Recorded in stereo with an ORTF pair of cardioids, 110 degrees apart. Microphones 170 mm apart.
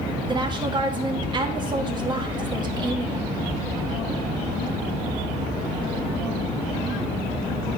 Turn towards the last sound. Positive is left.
turn(degrees=-25)